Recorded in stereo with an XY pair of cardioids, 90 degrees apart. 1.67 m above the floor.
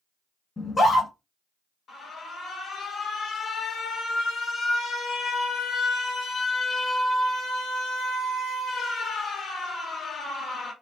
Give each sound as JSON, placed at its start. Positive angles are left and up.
{"t": 0.6, "sound": "a scream", "azimuth_deg": 30, "distance_m": 1.5}
{"t": 1.9, "sound": "an alarm", "azimuth_deg": 65, "distance_m": 1.1}